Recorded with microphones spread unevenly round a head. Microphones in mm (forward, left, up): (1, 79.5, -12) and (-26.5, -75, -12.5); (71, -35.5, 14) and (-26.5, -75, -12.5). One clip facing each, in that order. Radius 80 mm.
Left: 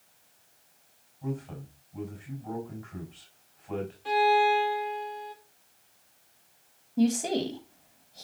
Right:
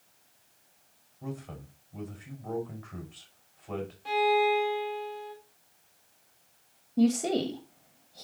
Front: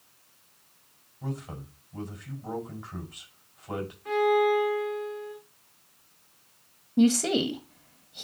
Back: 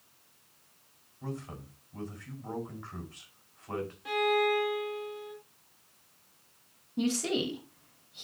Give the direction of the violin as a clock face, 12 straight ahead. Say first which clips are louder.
Left 2 dB, front 5 dB; 6 o'clock.